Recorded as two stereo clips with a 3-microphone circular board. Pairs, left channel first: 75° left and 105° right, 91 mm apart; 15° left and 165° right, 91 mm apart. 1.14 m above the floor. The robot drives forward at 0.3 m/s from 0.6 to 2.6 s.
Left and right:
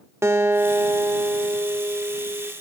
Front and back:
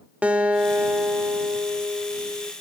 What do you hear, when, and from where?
0.2 s a guitar: 100° right, 0.8 m; by 2.5 s 150° right, 1.1 m